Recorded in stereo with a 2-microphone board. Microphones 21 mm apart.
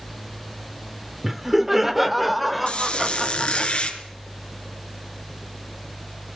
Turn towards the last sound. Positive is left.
turn(degrees=75)  # may be behind; listen again after turning